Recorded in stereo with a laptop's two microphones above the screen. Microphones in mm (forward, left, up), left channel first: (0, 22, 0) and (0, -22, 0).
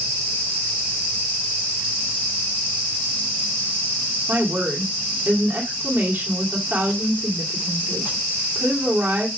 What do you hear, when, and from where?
4.3 s a woman speaking: 40° right (ahead or behind), 2.5 m